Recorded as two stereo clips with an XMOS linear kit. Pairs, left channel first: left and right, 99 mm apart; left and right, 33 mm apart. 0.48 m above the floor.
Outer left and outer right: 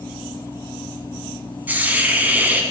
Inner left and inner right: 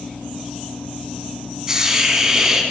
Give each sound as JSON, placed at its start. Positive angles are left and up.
{"t": 1.7, "sound": "a hiss", "side_deg": -15, "distance_m": 0.8}